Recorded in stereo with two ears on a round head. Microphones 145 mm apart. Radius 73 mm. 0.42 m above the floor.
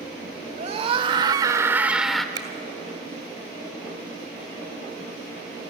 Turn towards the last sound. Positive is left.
turn(degrees=-25)  # may be behind; listen again after turning